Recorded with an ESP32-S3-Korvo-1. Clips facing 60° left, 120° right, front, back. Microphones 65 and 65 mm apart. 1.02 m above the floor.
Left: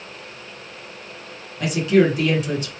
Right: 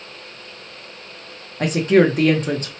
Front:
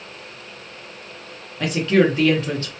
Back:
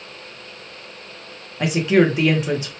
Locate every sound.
1.6 s a woman speaking: 110° right, 0.8 m